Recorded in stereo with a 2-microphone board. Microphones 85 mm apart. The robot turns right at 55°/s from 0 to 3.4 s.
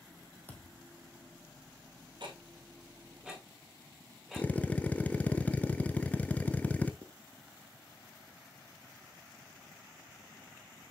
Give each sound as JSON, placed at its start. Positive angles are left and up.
{"t": 0.5, "sound": "a thud", "side_deg": 20, "distance_m": 1.6}
{"t": 2.2, "sound": "ticking", "side_deg": -65, "distance_m": 1.7}
{"t": 4.4, "sound": "a drill", "side_deg": 20, "distance_m": 0.6}
{"t": 7.0, "sound": "writing", "side_deg": -45, "distance_m": 0.8}